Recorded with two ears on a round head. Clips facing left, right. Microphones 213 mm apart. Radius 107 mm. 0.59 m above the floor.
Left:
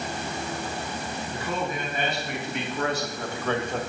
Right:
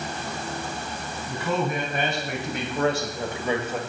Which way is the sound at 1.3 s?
60° right (ahead or behind).